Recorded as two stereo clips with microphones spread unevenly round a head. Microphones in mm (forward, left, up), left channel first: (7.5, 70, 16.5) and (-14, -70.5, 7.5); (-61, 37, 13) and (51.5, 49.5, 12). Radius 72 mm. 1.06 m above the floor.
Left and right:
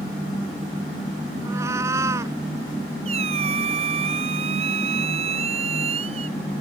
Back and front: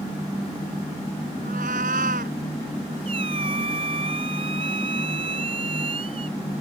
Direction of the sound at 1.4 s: 30° right.